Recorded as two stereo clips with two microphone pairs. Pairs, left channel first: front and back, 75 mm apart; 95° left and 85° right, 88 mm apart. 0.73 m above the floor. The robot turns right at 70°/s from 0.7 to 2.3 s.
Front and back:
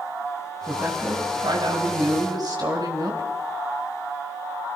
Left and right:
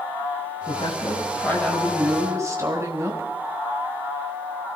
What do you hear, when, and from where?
0.7 s a woman speaking: 105° left, 6 m; by 3.3 s 145° right, 6 m